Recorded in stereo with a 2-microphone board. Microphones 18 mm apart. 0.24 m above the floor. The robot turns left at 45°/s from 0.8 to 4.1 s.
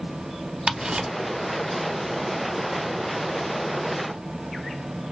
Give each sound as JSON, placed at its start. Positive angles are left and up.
{"t": 0.7, "sound": "ticking", "side_deg": -45, "distance_m": 0.6}